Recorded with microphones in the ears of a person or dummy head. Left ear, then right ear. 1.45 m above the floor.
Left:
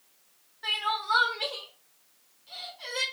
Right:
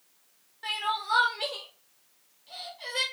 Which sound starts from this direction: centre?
Crying, at 0.6 s.